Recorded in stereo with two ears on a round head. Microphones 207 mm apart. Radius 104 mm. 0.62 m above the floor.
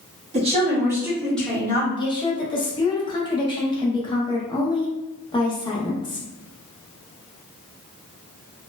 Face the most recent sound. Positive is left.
turn(degrees=20)  # may be behind; listen again after turning